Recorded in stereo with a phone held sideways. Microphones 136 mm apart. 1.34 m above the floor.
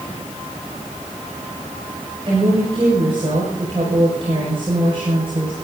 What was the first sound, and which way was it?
A woman speaking, 40° right (ahead or behind).